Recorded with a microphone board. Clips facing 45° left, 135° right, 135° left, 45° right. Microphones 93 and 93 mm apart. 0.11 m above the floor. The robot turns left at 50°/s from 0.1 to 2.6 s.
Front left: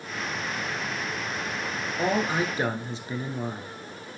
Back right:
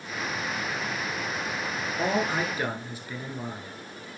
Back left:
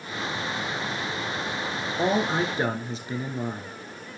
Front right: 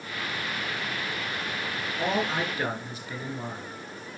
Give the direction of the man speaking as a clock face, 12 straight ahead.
8 o'clock.